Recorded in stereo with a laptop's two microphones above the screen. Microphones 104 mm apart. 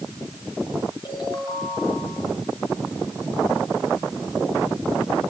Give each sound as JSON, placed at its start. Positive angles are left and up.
{"t": 1.1, "sound": "a ringtone", "side_deg": 40, "distance_m": 5.5}